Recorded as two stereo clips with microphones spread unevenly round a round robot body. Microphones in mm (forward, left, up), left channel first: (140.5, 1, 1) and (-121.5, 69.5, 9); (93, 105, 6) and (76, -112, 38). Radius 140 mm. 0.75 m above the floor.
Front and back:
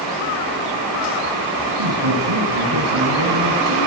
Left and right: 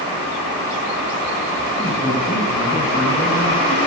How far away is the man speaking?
About 9.5 m.